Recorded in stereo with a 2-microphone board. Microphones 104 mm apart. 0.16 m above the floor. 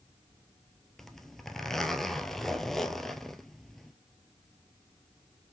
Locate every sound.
1.0 s a zipper: centre (ahead or behind), 0.6 m